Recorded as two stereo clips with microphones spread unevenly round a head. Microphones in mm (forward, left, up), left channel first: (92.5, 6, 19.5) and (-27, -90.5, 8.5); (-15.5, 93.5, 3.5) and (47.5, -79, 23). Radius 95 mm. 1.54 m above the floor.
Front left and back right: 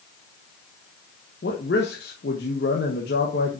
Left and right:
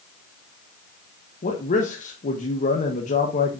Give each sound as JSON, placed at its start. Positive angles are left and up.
{"t": 1.4, "sound": "a man speaking", "azimuth_deg": 60, "distance_m": 1.3}